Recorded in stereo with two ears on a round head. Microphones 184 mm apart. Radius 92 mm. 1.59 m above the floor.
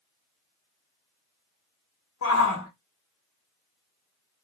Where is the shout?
75° left (ahead or behind), 0.9 m.